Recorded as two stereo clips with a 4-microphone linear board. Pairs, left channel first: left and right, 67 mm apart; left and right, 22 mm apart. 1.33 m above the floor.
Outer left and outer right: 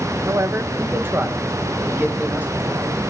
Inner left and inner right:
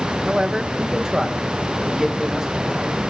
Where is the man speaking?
50° right (ahead or behind), 0.8 m; by 3.1 s 20° right (ahead or behind), 2.5 m.